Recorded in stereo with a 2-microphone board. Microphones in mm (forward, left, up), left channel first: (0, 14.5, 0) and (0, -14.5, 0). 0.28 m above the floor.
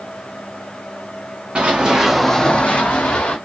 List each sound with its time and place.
1.6 s running footsteps: 40° right (ahead or behind), 0.9 m; by 3.4 s 75° left (ahead or behind), 1.2 m